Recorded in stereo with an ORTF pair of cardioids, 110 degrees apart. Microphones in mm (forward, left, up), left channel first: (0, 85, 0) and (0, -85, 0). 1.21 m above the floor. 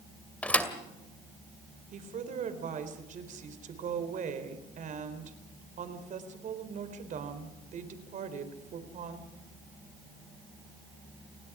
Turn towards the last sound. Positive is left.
turn(degrees=-50)